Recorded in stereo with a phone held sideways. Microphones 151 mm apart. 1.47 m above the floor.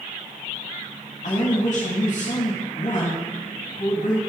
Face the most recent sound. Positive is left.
turn(degrees=55)  # may be behind; listen again after turning